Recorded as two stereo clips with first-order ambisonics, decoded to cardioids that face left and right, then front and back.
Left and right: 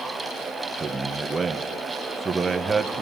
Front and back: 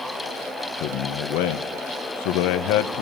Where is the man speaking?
10° right, 1.4 m.